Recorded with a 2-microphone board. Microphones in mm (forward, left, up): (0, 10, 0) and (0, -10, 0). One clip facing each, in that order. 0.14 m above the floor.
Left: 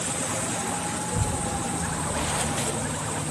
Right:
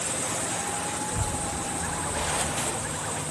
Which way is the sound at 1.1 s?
40° left (ahead or behind).